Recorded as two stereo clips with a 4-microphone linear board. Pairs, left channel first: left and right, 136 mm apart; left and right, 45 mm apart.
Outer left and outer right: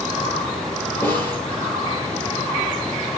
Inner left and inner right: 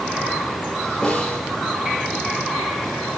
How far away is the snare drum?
About 5 m.